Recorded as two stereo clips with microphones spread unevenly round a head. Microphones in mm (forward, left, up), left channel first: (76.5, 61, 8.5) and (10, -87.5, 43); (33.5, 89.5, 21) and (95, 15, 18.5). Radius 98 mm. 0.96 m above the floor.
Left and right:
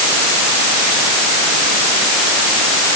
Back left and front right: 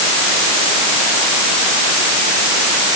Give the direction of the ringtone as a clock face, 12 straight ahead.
No ringtone in this recording.